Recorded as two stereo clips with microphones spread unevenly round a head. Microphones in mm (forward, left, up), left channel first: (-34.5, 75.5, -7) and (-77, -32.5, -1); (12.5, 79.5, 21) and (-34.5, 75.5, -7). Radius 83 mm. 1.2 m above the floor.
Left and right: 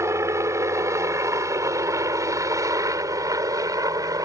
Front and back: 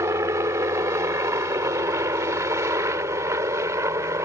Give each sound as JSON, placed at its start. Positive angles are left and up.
{"t": 0.0, "sound": "a helicopter", "azimuth_deg": -175}